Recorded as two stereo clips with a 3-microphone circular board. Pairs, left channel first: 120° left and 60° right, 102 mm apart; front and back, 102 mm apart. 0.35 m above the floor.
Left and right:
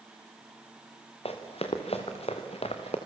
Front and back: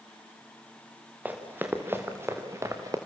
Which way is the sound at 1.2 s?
105° left.